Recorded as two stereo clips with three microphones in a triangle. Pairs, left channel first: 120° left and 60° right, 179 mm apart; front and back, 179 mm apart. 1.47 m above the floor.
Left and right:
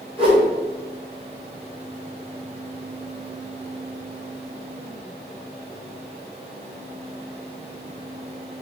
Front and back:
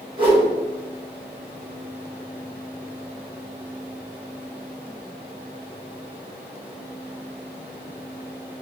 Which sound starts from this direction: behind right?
A whoosh, at 0.2 s.